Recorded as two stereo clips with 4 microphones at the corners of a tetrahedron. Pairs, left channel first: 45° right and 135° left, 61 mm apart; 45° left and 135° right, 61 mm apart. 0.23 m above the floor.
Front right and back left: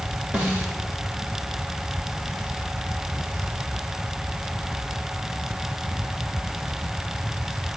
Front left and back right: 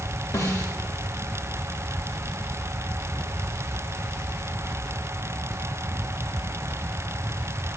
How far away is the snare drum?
About 8 m.